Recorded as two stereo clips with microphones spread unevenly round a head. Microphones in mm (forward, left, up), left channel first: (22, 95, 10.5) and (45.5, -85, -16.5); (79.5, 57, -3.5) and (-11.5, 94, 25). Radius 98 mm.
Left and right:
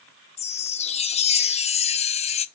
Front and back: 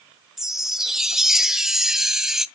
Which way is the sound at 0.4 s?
95° left.